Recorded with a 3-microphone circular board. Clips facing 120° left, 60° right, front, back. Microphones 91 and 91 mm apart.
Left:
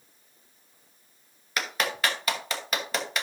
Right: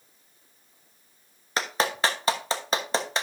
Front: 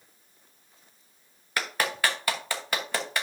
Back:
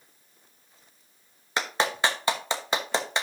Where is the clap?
115° right, 1.0 m.